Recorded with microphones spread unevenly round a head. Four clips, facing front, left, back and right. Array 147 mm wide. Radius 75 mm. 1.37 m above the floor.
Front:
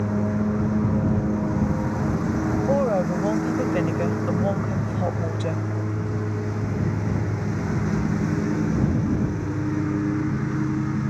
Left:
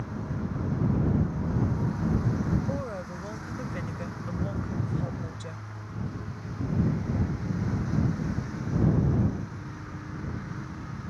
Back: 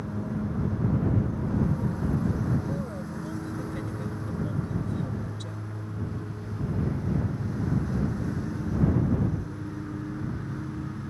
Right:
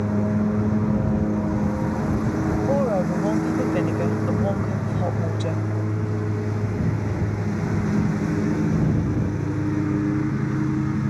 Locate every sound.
0.0 s a lawn mower: 55° right
2.7 s a woman speaking: 40° right